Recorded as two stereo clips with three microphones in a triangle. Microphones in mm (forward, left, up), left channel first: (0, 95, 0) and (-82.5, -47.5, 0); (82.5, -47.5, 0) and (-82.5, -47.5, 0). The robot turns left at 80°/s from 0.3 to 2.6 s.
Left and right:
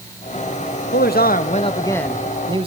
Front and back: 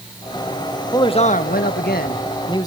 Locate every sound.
0.9 s a man speaking: 70° left, 1.8 m; by 2.7 s 65° right, 1.8 m